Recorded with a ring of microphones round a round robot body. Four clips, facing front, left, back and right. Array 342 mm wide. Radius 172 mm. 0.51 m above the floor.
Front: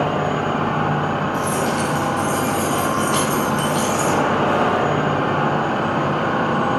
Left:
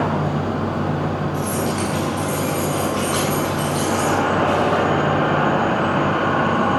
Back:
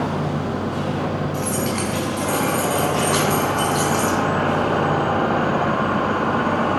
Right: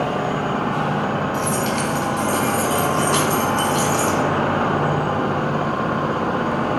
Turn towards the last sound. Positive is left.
turn(degrees=-95)